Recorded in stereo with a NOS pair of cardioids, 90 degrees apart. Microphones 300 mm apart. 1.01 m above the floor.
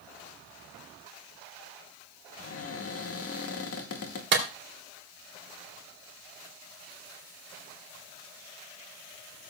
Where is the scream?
I don't hear a scream.